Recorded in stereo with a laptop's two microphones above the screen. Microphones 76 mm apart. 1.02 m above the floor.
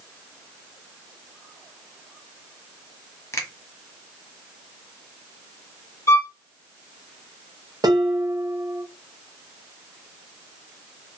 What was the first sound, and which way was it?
A finger snap, 35° left (ahead or behind).